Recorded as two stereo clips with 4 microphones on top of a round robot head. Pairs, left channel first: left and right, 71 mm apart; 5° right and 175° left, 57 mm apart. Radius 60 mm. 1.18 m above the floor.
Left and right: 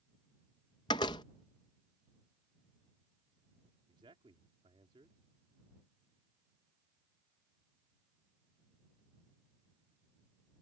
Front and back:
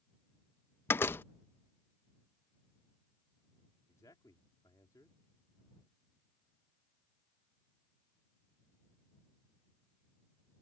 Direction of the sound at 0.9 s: 45° left.